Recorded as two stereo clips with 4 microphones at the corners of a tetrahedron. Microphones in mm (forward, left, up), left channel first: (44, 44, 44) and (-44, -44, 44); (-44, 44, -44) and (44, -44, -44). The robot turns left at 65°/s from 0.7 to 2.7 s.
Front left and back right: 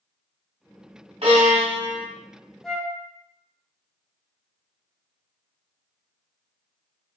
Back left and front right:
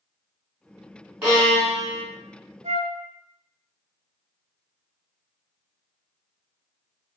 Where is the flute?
40° right, 0.6 m; by 3.0 s 45° right, 0.6 m.